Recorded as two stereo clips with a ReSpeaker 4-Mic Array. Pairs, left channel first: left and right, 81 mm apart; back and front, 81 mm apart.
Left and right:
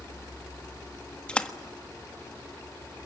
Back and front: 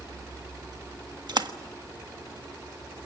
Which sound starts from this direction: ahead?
A splash, at 1.3 s.